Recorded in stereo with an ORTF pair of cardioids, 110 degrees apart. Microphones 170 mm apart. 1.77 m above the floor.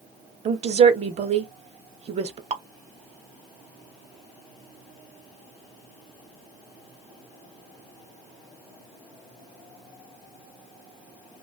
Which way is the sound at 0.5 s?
40° right.